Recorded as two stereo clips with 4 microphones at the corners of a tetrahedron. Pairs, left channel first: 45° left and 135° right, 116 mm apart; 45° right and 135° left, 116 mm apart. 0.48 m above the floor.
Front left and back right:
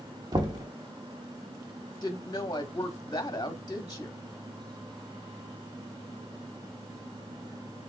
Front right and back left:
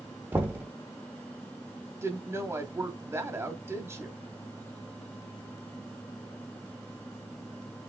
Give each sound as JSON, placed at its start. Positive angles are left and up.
{"t": 0.3, "sound": "knocking", "azimuth_deg": -165, "distance_m": 1.0}
{"t": 2.0, "sound": "a woman speaking", "azimuth_deg": 80, "distance_m": 0.9}